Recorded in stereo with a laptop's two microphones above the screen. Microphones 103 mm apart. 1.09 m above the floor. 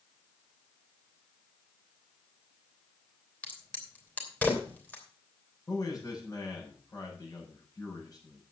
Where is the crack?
15° left (ahead or behind), 3 m.